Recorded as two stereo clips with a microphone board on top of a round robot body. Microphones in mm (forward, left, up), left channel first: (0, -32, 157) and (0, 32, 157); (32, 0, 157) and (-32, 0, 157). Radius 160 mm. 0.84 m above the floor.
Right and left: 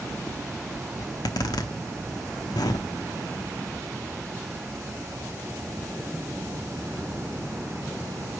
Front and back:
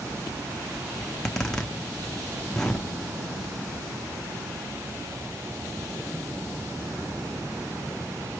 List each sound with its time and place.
1.0 s a zipper: 80° right, 0.6 m